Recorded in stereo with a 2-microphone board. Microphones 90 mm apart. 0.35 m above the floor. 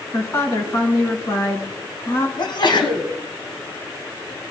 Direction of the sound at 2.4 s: 60° left (ahead or behind).